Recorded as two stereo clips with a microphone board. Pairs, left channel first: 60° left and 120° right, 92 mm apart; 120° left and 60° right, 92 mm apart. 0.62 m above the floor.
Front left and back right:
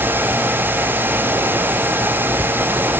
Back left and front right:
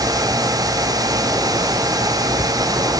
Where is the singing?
No singing in this recording.